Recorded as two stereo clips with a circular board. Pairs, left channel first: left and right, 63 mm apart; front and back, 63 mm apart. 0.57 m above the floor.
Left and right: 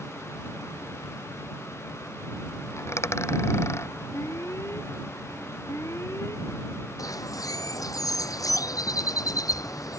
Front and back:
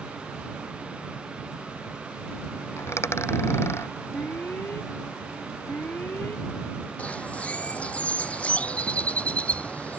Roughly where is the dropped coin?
Ahead left.